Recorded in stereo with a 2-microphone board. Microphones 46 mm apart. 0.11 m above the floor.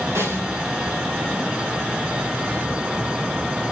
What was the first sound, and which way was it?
A snare drum, 85° right.